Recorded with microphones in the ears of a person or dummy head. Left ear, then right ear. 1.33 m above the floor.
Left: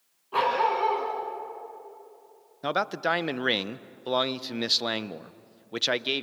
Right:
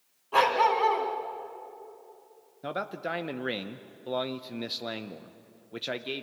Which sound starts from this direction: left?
A man speaking, at 2.6 s.